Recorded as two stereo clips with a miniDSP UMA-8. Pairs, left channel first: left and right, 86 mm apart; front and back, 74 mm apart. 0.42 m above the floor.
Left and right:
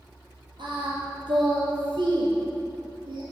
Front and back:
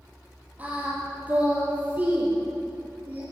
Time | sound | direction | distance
0.6 | singing | 110° right | 5 m